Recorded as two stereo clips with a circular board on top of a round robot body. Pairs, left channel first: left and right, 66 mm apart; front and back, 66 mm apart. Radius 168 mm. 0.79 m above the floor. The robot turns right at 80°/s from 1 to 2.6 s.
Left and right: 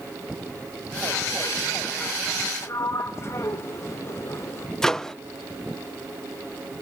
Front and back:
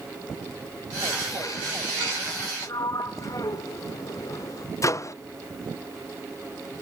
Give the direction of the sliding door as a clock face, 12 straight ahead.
11 o'clock.